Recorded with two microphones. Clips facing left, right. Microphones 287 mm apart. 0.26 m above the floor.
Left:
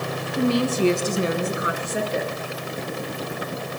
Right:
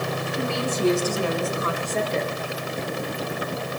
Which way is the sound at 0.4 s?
45° left (ahead or behind).